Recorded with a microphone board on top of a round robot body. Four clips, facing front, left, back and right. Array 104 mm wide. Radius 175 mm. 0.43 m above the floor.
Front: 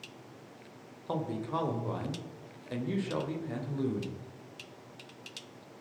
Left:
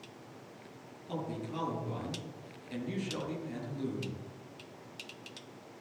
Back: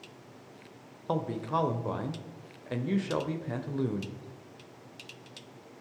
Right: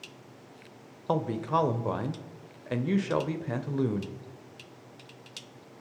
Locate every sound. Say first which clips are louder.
1.1 s a man speaking: right 11 dB, back 3 dB; 110° right, 2 m